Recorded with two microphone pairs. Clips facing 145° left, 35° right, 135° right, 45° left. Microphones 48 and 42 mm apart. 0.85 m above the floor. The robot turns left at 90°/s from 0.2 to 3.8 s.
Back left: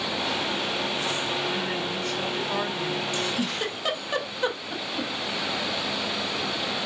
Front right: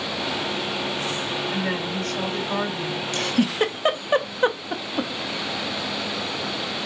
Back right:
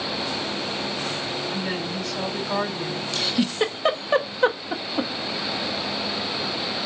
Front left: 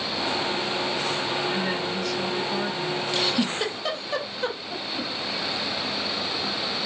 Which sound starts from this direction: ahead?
A woman speaking, at 1.5 s.